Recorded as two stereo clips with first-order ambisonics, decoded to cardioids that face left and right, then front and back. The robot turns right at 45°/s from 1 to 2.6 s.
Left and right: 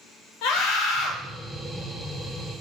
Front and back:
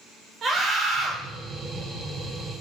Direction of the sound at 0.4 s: 115° left.